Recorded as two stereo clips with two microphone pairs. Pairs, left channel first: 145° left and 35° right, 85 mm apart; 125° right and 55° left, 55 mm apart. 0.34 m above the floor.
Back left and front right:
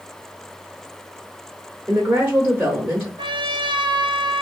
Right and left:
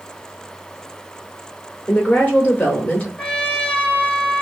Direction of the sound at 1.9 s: 90° right.